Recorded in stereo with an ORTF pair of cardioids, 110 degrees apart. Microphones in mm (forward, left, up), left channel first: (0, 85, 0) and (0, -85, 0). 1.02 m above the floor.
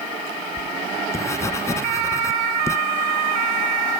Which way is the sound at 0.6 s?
15° left.